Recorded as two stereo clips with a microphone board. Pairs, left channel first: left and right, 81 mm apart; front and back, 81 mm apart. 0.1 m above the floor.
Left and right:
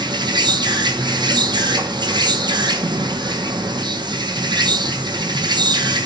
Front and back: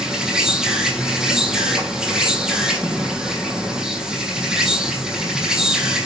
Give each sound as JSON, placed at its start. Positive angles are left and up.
{"t": 0.0, "sound": "an insect", "azimuth_deg": -100, "distance_m": 1.8}